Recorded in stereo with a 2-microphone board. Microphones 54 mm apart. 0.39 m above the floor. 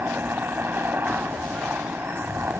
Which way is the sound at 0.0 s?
40° right (ahead or behind).